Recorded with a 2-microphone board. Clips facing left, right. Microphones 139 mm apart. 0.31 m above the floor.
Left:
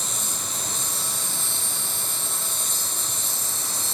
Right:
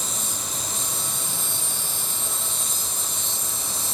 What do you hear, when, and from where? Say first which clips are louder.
0.0 s an insect: right 1 dB; 65° left (ahead or behind), 4.5 m